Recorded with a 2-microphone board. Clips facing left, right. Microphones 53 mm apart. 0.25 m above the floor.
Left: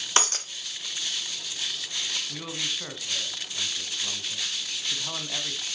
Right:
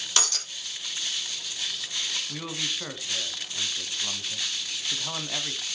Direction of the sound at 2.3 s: 10° right (ahead or behind).